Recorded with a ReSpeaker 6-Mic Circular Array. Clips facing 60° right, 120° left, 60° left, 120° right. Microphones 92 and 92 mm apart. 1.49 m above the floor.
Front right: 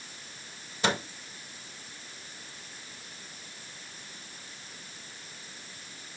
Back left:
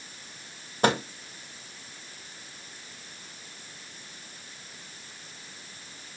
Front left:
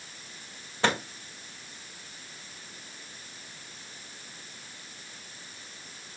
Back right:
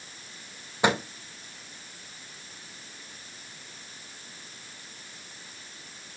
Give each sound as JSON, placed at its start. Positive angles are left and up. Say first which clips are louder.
{"t": 0.8, "sound": "a microwave", "louder": "back left 5 dB, back right 3 dB", "azimuth_deg": 165, "distance_m": 1.7}